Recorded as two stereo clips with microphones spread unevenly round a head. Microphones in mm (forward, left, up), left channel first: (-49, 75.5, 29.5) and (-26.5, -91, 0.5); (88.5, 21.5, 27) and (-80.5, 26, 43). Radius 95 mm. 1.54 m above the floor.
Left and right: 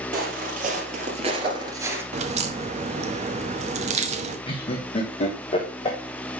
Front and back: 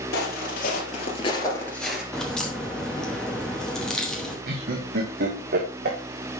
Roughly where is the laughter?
Behind left.